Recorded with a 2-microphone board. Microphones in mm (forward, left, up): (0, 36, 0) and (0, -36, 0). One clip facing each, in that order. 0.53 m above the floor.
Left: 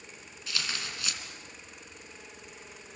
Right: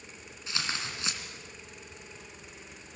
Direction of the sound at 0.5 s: 25° right (ahead or behind).